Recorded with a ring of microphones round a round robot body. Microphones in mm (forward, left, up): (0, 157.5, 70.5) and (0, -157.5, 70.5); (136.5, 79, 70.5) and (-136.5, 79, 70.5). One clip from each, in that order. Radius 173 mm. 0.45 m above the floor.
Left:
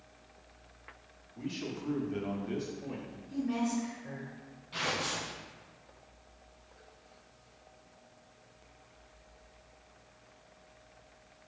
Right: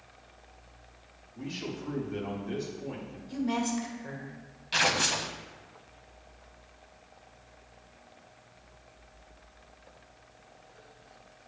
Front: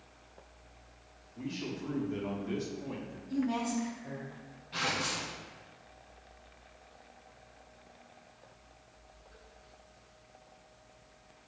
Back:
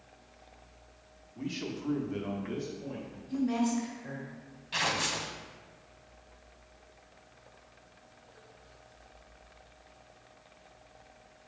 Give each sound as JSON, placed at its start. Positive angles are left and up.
{"t": 1.4, "sound": "a man speaking", "azimuth_deg": 175, "distance_m": 1.6}
{"t": 3.3, "sound": "a woman speaking", "azimuth_deg": -110, "distance_m": 1.9}
{"t": 4.7, "sound": "tearing paper", "azimuth_deg": -130, "distance_m": 0.5}